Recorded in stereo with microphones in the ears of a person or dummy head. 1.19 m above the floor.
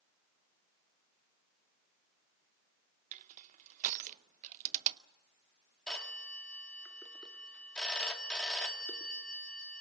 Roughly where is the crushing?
Right.